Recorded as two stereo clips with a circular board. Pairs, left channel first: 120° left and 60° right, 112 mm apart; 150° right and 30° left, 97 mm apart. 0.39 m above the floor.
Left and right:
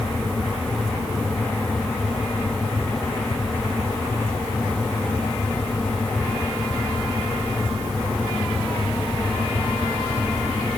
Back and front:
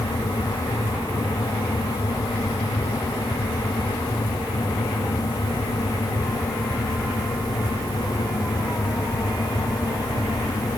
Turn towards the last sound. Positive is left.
No sound to turn to.